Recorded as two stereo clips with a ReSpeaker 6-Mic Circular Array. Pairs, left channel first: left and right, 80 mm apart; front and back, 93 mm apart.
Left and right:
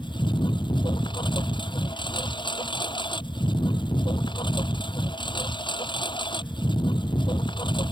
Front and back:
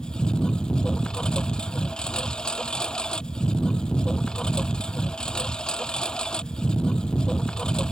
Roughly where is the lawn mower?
Left.